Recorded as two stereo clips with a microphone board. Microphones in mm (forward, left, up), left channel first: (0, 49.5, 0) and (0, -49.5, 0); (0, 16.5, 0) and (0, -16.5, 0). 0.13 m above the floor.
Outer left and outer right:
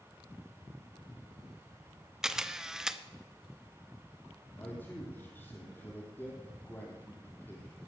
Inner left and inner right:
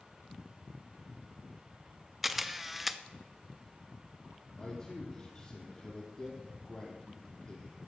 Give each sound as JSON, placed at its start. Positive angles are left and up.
{"t": 2.2, "sound": "a camera shutter", "side_deg": -5, "distance_m": 0.6}
{"t": 4.6, "sound": "a man speaking", "side_deg": 20, "distance_m": 4.0}